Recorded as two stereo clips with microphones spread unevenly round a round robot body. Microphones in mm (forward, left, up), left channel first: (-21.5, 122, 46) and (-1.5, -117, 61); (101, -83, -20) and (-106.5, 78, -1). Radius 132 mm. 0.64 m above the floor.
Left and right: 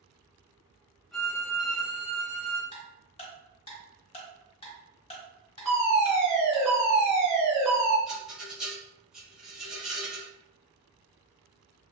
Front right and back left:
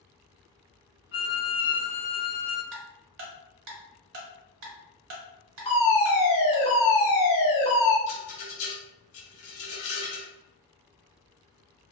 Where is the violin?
5° left, 1.8 m.